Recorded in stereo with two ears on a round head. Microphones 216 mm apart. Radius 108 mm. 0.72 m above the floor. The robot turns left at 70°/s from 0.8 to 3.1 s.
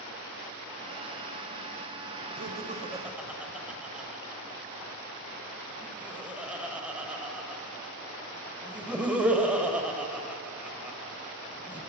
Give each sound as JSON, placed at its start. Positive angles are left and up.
{"t": 2.4, "sound": "laughter", "side_deg": -55, "distance_m": 4.0}